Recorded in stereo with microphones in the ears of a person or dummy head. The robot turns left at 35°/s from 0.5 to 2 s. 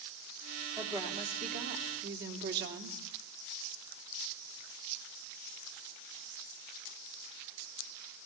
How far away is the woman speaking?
About 3.5 m.